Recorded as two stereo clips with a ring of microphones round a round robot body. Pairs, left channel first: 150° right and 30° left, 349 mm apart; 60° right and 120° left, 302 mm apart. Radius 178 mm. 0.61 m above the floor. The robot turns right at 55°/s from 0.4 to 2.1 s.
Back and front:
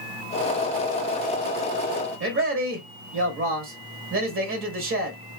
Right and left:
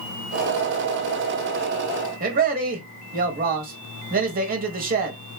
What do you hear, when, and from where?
2.2 s a man speaking: 70° left, 1.0 m